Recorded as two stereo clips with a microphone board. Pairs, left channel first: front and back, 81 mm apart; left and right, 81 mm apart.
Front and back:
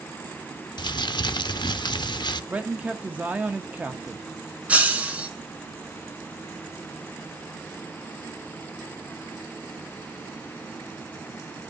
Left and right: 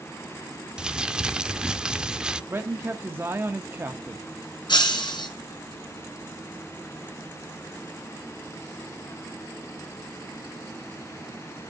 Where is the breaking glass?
110° left, 3.5 m.